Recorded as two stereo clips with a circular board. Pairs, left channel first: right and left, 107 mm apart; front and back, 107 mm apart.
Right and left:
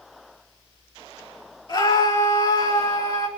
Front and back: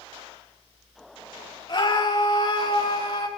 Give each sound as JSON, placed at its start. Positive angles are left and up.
{"t": 1.7, "sound": "a scream", "azimuth_deg": -45, "distance_m": 4.0}